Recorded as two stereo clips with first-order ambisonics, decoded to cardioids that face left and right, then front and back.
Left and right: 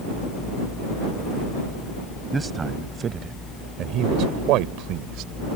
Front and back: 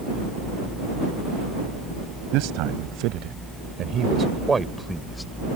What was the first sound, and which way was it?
A man speaking, 170° right.